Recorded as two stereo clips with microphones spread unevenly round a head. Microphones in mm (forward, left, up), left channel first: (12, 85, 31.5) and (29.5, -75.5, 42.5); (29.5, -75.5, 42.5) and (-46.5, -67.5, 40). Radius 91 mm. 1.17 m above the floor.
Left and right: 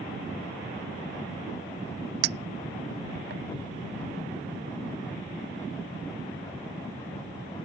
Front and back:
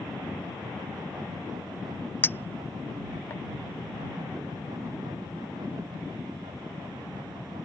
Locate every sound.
2.2 s a clink: 70° right